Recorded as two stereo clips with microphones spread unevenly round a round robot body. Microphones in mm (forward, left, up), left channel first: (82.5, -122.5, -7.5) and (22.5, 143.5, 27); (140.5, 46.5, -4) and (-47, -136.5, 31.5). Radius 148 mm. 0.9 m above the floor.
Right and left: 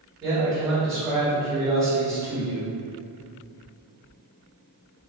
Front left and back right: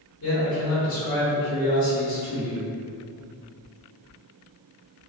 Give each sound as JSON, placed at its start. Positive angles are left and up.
{"t": 0.2, "sound": "a man speaking", "azimuth_deg": 10, "distance_m": 1.4}